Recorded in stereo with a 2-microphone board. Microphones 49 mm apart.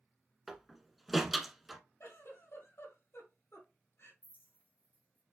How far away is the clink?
About 1.5 m.